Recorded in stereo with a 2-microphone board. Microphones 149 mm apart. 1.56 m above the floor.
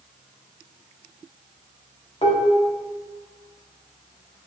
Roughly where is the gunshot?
I don't hear a gunshot.